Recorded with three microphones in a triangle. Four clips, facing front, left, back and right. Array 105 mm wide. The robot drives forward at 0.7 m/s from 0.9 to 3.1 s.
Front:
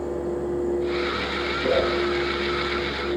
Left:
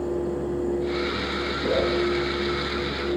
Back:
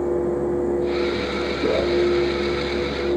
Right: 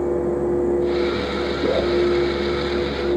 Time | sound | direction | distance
1.6 | a whoosh | 130° right | 2.5 m